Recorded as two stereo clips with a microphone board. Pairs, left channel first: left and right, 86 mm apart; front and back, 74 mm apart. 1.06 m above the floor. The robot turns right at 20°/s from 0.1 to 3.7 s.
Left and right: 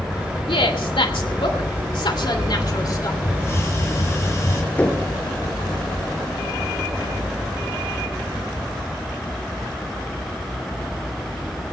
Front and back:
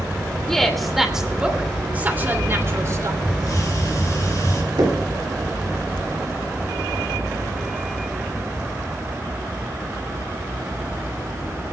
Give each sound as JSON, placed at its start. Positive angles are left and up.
{"t": 0.5, "sound": "a woman speaking", "azimuth_deg": 80, "distance_m": 2.5}
{"t": 3.2, "sound": "a hiss", "azimuth_deg": 30, "distance_m": 4.0}
{"t": 4.8, "sound": "knocking", "azimuth_deg": 160, "distance_m": 2.5}